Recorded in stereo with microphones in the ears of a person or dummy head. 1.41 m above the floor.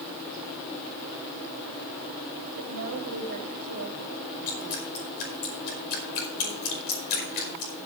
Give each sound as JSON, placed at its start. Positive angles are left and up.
{"t": 2.6, "sound": "a woman speaking", "side_deg": -60, "distance_m": 3.0}
{"t": 4.5, "sound": "dripping", "side_deg": 55, "distance_m": 5.0}